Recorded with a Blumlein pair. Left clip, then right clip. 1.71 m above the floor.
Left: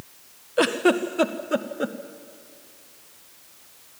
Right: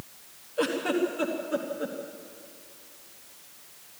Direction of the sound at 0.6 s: 60° left.